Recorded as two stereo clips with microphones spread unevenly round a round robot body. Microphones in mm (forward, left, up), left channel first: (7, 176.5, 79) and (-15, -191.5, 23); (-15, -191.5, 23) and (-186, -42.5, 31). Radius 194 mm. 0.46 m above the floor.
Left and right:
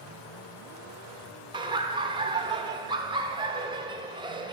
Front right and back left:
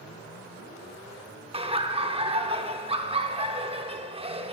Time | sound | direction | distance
1.5 | laughter | 160° right | 1.2 m